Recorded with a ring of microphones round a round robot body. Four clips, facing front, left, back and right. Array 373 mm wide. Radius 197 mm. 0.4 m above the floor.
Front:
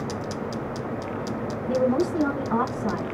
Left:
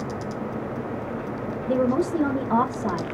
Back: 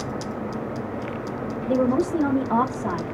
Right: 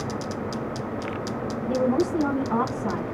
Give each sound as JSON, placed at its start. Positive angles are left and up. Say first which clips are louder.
{"t": 1.7, "sound": "a woman speaking", "louder": "left 1 dB, back 2 dB", "azimuth_deg": 135, "distance_m": 1.6}